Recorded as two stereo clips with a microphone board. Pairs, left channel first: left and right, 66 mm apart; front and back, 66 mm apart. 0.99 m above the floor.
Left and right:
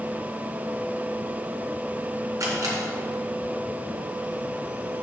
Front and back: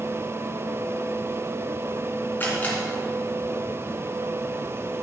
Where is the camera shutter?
60° right, 2.5 m.